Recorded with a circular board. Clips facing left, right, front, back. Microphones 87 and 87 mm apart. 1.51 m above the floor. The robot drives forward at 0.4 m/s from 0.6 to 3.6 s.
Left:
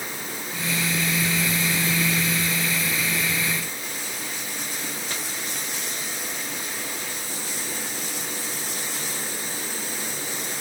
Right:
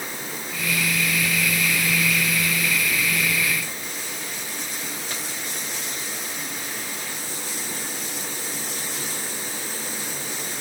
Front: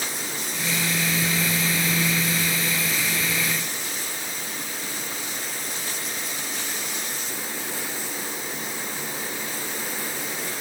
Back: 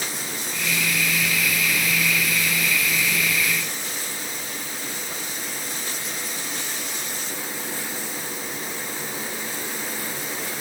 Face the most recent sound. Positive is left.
No sound to turn to.